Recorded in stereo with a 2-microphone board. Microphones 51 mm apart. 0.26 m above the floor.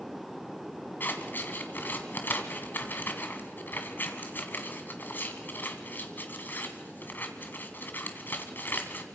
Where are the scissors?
45° left (ahead or behind), 1.7 m.